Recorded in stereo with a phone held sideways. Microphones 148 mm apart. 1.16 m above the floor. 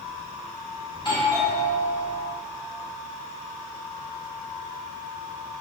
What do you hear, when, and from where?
0.9 s a doorbell: 35° left (ahead or behind), 3 m